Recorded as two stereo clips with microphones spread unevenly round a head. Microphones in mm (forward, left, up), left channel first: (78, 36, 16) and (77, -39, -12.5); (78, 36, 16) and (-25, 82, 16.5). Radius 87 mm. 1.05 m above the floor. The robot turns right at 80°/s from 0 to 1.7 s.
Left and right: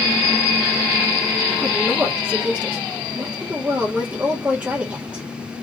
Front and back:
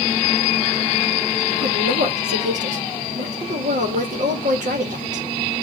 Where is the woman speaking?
Straight behind, 1.3 m; by 5.2 s 170° right, 1.3 m.